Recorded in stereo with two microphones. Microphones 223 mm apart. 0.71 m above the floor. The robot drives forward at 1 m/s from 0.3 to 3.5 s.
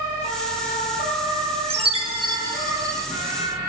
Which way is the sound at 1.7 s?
25° right (ahead or behind).